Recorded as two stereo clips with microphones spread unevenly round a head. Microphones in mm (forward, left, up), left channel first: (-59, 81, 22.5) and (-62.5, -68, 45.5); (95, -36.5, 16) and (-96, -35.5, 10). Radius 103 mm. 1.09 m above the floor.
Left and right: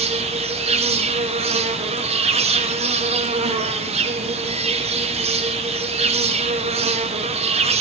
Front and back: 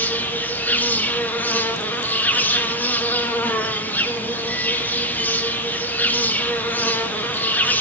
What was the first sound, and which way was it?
An insect, 80° right.